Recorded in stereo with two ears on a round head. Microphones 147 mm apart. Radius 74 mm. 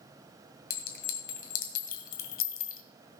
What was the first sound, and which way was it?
A clink, 55° left (ahead or behind).